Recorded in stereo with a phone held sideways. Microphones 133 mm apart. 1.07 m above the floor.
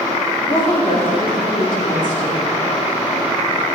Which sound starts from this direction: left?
A woman speaking, at 0.4 s.